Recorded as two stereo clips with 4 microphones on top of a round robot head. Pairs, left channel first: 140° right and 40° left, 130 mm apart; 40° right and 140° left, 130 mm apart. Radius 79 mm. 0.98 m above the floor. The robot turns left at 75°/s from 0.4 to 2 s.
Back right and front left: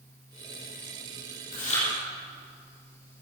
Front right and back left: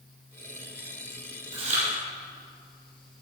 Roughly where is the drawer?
I don't hear a drawer.